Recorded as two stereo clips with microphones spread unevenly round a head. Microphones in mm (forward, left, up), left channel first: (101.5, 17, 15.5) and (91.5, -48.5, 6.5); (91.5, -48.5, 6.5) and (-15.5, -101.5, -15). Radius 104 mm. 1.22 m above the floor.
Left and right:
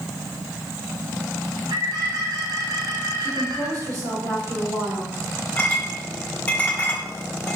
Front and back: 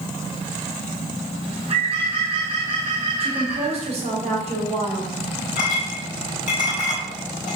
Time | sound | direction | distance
1.4 | a bird | 115° right | 2 m
3.2 | a woman speaking | 130° right | 1.6 m
5.6 | a clink | 20° left | 1.7 m